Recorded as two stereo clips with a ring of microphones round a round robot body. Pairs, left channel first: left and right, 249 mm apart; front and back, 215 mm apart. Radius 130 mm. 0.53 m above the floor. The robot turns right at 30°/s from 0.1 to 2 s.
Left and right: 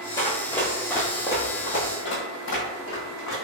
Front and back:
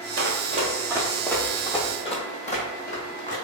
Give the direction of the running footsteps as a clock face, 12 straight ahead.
7 o'clock.